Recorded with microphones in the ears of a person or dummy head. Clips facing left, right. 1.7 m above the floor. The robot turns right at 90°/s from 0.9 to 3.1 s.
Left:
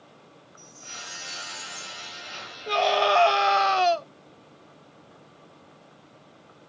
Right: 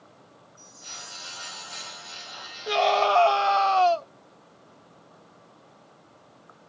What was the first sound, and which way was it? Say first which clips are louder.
A chime: left 2 dB; 10° left.